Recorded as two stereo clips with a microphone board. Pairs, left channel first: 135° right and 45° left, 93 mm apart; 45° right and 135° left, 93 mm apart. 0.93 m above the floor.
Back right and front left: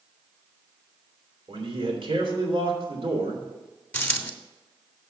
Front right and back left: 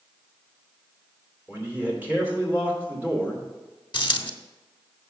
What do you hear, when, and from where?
1.5 s a man speaking: 65° left, 2.5 m
3.9 s a dropped coin: 65° right, 0.9 m